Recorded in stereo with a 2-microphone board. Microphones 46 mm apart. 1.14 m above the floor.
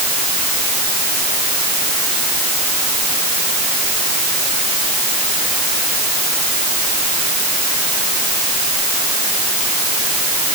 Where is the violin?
No violin in this recording.